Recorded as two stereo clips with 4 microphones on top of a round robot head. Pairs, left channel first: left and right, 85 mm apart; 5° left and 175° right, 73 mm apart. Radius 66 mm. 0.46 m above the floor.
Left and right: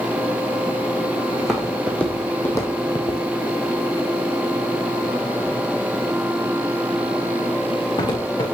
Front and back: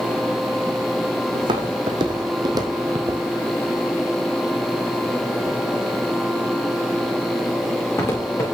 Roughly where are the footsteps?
Behind.